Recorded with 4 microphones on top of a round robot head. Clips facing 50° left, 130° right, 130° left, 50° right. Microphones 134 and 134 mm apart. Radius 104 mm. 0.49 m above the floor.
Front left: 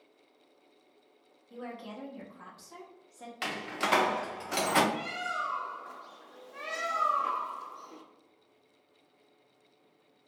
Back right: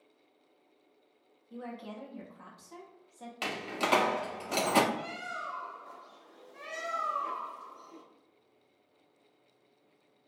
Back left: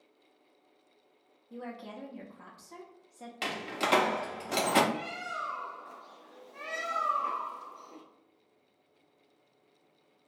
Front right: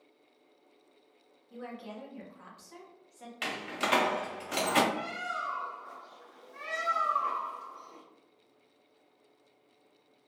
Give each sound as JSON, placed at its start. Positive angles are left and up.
{"t": 1.5, "sound": "a woman speaking", "azimuth_deg": 135, "distance_m": 1.0}
{"t": 3.4, "sound": "a door slam", "azimuth_deg": 170, "distance_m": 0.7}
{"t": 4.9, "sound": "a bird", "azimuth_deg": 60, "distance_m": 0.7}